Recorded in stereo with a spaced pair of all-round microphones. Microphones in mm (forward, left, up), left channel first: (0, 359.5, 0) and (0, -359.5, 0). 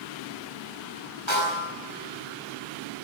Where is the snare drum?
40° left (ahead or behind), 8 m.